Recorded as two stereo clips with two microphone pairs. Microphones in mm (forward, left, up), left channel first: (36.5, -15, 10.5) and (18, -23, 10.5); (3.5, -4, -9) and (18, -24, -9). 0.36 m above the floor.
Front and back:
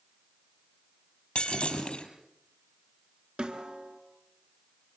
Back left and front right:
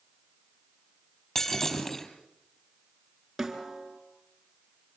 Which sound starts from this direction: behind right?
A snare drum, at 3.4 s.